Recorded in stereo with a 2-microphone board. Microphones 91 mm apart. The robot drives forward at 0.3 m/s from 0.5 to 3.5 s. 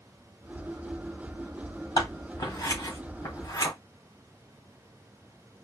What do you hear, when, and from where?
2.0 s scissors: 40° left (ahead or behind), 1.4 m; by 3.7 s 35° left (ahead or behind), 1.5 m